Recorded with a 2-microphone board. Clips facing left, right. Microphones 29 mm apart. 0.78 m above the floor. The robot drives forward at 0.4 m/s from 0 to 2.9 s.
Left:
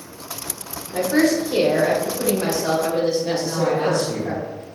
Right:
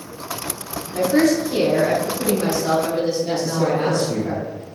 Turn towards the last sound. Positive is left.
turn(degrees=-10)  # may be behind; listen again after turning